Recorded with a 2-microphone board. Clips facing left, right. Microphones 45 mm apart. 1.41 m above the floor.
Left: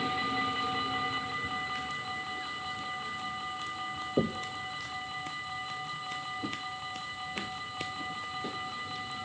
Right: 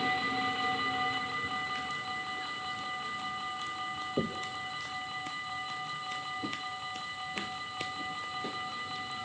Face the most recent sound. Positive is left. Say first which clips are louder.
# left 4 dB
turn(degrees=25)  # may be behind; listen again after turning